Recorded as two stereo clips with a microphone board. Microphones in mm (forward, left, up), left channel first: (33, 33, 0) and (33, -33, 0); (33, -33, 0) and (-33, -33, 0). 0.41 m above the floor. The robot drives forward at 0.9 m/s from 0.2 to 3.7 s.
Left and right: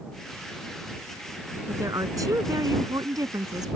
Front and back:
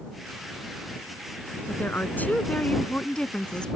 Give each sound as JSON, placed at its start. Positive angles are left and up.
{"t": 1.7, "sound": "a woman speaking", "azimuth_deg": -60}